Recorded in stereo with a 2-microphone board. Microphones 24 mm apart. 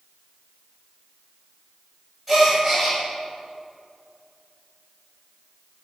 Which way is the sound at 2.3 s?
Centre (ahead or behind).